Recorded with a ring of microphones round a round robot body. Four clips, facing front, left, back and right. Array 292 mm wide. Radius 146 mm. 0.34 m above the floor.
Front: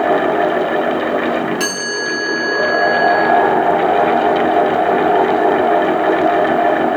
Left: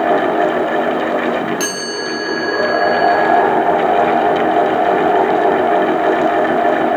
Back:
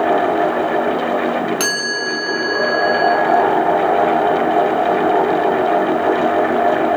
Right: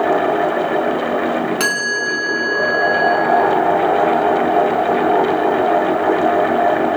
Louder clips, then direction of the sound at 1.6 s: Right 1 dB, front 1 dB; 135° right.